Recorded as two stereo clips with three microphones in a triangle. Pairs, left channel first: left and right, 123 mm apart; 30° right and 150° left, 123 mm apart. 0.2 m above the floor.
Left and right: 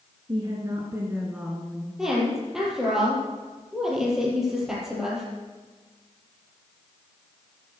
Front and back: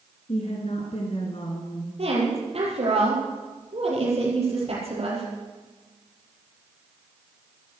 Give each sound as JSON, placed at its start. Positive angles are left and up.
{"t": 0.3, "sound": "a woman speaking", "azimuth_deg": -40, "distance_m": 2.5}
{"t": 2.0, "sound": "a woman speaking", "azimuth_deg": -175, "distance_m": 6.0}